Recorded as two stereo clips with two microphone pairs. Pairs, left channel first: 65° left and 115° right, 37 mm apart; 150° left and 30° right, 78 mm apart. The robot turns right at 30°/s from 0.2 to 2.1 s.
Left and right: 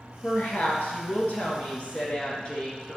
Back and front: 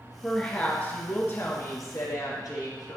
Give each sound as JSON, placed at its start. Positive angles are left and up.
{"t": 0.2, "sound": "a woman speaking", "azimuth_deg": 65, "distance_m": 2.5}